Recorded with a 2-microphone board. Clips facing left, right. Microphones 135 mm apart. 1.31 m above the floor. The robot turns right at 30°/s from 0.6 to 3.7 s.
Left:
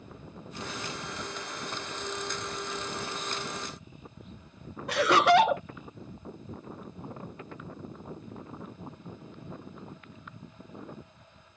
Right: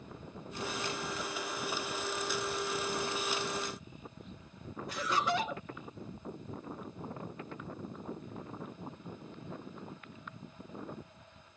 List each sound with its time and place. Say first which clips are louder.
4.9 s laughter: left 12 dB; 65° left (ahead or behind)